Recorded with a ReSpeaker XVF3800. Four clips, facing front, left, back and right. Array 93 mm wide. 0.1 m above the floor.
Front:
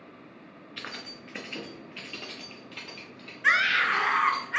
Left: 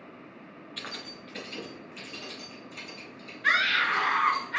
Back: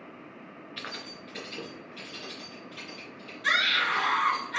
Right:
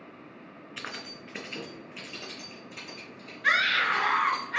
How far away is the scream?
About 1.2 m.